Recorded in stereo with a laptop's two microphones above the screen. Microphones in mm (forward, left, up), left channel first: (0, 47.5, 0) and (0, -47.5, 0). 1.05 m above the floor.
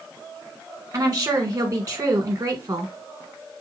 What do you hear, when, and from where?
0.9 s a woman speaking: 35° right (ahead or behind), 1.3 m